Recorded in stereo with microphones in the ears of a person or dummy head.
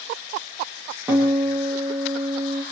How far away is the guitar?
About 7 m.